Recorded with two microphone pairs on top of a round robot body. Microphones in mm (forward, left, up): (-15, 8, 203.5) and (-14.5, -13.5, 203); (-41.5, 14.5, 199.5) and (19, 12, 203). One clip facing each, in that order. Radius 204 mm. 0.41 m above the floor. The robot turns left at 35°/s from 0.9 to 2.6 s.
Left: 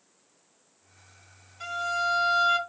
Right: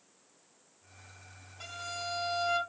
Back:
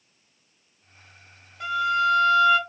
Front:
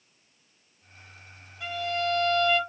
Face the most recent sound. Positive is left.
turn(degrees=150)